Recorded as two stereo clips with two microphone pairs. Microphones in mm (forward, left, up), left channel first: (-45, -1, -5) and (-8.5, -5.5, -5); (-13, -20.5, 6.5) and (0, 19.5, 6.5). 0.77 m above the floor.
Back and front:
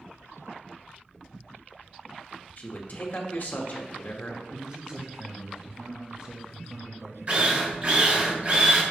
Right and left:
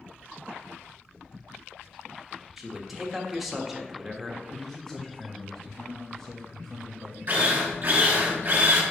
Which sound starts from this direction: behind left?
A man speaking, at 2.6 s.